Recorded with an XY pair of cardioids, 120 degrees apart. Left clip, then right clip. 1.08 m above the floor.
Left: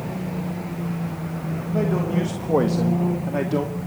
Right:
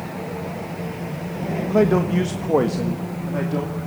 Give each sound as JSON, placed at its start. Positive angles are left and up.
{"t": 1.7, "sound": "a man speaking", "azimuth_deg": -55, "distance_m": 1.4}